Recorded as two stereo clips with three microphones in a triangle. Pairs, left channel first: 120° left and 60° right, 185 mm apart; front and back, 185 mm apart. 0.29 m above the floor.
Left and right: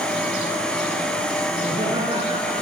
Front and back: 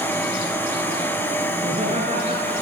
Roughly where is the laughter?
Behind right.